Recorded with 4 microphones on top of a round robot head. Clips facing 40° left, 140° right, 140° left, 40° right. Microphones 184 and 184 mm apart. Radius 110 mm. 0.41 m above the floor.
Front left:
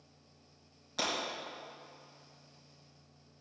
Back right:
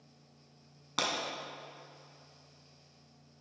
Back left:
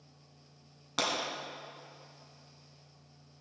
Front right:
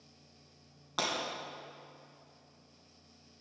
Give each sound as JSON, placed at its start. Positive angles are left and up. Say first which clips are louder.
{"t": 1.0, "sound": "breaking glass", "louder": "back right 1 dB, back left 2 dB", "azimuth_deg": -150, "distance_m": 3.0}